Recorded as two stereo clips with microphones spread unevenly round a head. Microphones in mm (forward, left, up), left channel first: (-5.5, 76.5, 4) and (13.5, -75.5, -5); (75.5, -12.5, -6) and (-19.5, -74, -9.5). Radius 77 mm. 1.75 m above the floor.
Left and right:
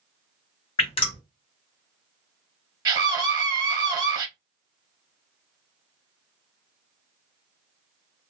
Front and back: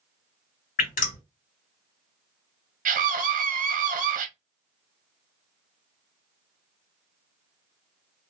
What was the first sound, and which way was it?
Dripping, 40° left.